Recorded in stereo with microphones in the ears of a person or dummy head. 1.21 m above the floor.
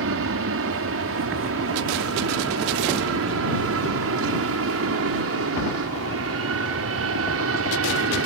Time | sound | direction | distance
0.0 | an aircraft | 65° right (ahead or behind) | ?